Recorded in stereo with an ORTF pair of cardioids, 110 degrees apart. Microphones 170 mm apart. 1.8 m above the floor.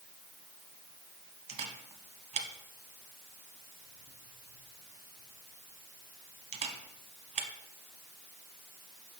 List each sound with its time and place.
1.5 s a camera shutter: 40° right, 1.1 m